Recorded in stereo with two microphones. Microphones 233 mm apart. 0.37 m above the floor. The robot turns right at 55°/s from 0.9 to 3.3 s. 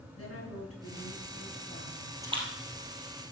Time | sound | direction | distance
0.1 | a woman speaking | 90° left | 5.5 m
2.2 | a splash | 15° right (ahead or behind) | 2.5 m